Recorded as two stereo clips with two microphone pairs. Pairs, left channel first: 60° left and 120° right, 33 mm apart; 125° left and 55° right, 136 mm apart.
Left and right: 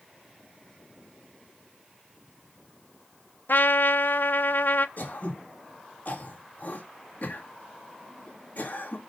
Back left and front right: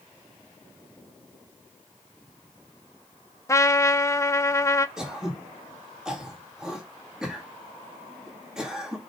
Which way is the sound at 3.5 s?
55° left.